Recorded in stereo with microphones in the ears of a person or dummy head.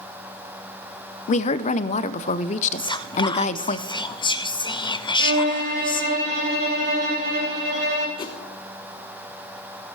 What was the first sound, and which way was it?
A woman speaking, 45° left (ahead or behind).